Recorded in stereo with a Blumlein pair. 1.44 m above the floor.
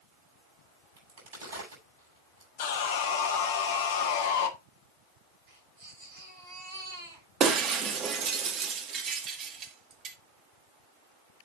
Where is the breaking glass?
30° right, 1.6 m.